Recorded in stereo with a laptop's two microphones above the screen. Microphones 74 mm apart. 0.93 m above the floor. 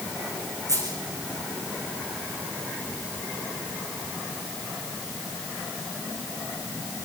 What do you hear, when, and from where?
0.7 s a dropped coin: 55° right (ahead or behind), 7 m